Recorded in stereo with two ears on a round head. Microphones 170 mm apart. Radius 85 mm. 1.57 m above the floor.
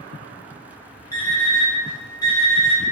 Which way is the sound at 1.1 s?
20° left (ahead or behind).